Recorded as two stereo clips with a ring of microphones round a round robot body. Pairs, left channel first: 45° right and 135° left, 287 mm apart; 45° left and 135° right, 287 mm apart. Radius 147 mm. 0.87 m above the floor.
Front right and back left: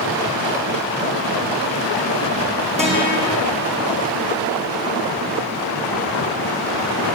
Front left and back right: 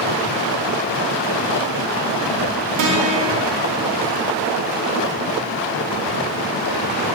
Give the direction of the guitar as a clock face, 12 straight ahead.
5 o'clock.